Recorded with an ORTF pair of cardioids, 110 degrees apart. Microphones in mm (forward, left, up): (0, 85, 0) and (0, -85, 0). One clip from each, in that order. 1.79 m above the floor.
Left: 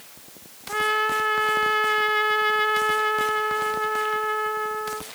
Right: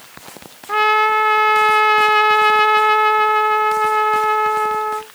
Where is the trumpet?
45° right.